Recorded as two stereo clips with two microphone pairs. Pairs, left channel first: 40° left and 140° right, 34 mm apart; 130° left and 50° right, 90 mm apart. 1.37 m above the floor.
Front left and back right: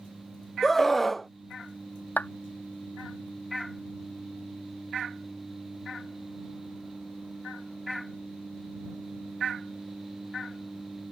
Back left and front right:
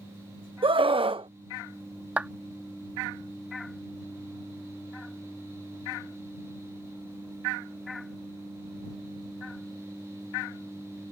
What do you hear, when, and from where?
0.6 s a scream: 50° right
2.2 s a clap: 25° left